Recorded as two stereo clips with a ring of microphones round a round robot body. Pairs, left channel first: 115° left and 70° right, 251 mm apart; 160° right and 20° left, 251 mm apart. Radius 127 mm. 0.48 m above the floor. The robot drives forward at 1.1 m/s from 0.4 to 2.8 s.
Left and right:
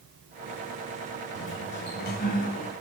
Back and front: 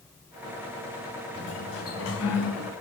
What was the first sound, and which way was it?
A sliding door, 150° left.